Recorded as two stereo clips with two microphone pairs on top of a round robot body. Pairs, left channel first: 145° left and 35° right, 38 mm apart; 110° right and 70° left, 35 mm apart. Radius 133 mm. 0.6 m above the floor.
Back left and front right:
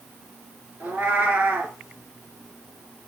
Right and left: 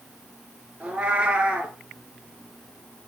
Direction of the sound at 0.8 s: 10° left.